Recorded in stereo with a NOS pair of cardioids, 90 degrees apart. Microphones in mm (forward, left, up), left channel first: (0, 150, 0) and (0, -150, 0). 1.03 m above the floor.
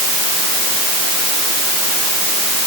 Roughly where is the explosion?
I don't hear an explosion.